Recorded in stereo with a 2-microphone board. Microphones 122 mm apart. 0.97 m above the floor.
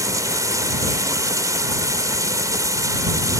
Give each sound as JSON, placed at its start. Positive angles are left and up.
{"t": 0.0, "sound": "running water", "side_deg": -25}